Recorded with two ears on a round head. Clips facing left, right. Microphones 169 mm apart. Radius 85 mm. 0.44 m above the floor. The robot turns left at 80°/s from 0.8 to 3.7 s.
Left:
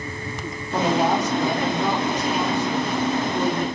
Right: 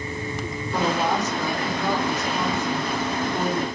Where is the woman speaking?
165° left, 1.3 m; by 3.6 s 65° right, 1.3 m.